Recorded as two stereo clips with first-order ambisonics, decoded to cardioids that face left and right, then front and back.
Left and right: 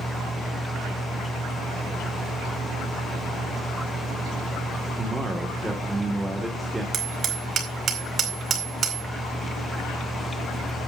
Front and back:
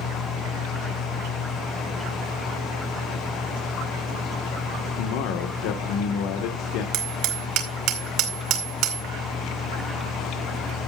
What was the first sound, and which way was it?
A man speaking, 10° right.